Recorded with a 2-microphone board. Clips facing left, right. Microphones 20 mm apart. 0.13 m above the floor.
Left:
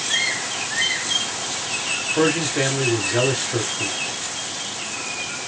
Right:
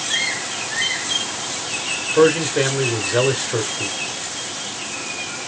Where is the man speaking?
25° right (ahead or behind), 1.6 m.